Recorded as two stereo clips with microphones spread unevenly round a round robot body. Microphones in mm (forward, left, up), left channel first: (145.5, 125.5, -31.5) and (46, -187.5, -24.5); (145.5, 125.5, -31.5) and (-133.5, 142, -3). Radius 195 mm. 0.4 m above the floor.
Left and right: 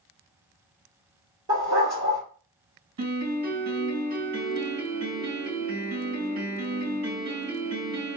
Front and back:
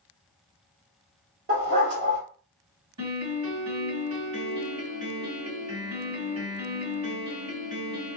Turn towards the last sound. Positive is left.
turn(degrees=-145)